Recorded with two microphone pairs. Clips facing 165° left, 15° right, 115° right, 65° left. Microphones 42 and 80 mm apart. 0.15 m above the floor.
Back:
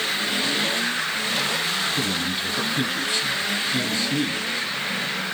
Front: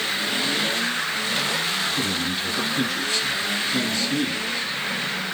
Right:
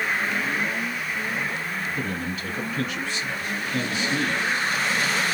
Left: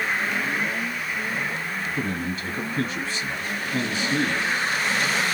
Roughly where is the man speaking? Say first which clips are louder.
Even, left 1 dB; left.